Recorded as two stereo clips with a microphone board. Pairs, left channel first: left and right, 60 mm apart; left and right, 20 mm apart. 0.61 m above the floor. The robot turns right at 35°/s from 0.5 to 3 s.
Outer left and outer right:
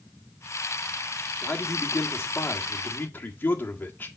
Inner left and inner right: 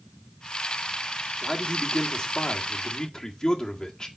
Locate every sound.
1.4 s a man speaking: 80° left, 1.5 m; by 4.1 s 135° left, 1.5 m